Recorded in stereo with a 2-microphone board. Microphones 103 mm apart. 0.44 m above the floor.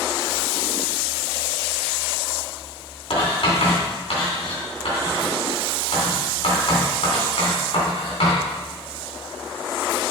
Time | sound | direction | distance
3.1 | writing | 70° left (ahead or behind) | 3.5 m